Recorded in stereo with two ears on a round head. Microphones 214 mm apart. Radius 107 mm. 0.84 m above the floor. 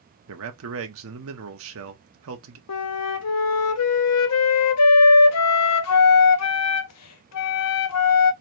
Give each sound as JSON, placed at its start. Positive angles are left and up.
{"t": 0.3, "sound": "a man speaking", "side_deg": -65, "distance_m": 1.3}
{"t": 2.7, "sound": "a flute", "side_deg": 70, "distance_m": 0.7}